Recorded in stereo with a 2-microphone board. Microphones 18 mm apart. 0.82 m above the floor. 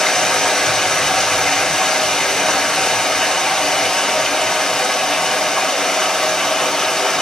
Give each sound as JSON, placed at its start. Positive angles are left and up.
{"t": 0.0, "sound": "running water", "side_deg": 40, "distance_m": 2.0}